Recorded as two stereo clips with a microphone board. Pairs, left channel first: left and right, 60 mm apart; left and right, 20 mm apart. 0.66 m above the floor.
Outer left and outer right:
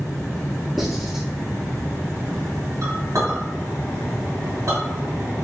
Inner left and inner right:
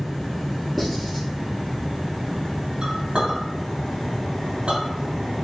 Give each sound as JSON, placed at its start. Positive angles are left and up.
{"t": 0.8, "sound": "writing", "side_deg": 0, "distance_m": 2.0}
{"t": 2.8, "sound": "a clink", "side_deg": -75, "distance_m": 2.0}